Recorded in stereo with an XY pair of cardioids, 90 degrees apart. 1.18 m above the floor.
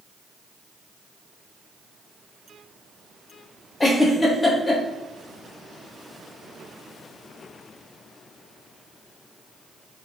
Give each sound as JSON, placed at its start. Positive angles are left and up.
{"t": 3.8, "sound": "a giggle", "azimuth_deg": 30, "distance_m": 0.9}